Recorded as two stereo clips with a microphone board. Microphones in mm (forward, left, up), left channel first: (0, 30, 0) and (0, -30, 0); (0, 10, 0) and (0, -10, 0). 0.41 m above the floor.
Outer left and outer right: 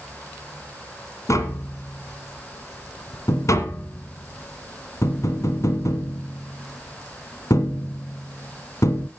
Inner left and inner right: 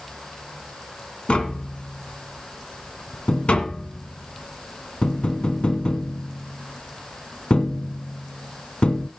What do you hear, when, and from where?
1.3 s tapping: 60° left (ahead or behind), 1.7 m